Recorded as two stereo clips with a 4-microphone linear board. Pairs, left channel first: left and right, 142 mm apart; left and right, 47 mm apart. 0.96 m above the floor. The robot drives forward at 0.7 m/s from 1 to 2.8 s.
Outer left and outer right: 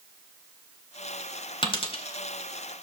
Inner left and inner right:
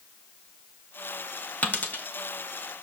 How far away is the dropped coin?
About 1.8 m.